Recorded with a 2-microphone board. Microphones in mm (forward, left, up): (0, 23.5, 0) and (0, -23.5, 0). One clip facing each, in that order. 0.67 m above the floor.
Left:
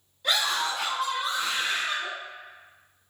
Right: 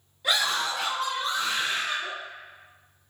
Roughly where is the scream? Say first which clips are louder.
Even; centre.